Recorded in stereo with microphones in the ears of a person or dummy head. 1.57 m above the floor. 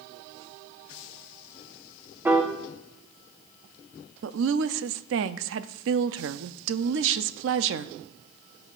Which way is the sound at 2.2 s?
10° right (ahead or behind).